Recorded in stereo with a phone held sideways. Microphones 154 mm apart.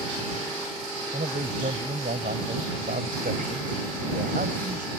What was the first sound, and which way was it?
A man speaking, 85° right.